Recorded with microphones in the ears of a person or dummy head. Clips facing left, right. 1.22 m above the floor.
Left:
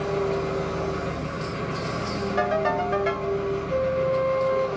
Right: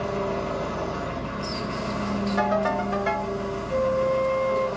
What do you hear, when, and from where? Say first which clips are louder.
0.0 s an engine running: left 2 dB; 30° left (ahead or behind), 2.5 m
2.4 s a ringtone: left 2 dB; 25° left (ahead or behind), 2 m
3.7 s a flute: right 2 dB; 5° left (ahead or behind), 0.8 m